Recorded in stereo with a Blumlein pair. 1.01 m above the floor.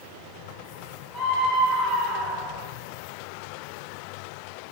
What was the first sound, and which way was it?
A scream, straight ahead.